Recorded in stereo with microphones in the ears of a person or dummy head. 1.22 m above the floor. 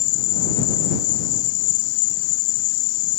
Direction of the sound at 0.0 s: 65° left (ahead or behind).